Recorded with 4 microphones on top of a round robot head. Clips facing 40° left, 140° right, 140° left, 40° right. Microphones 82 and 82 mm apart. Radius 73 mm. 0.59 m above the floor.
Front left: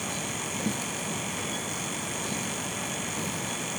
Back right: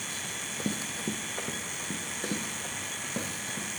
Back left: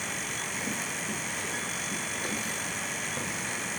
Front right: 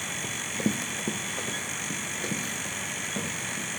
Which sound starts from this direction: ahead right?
Running footsteps, at 0.2 s.